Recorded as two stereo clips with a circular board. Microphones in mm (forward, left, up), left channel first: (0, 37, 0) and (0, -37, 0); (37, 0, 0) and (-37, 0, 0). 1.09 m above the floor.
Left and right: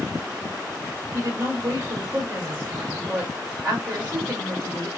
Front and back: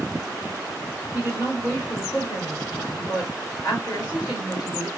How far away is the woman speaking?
About 2 m.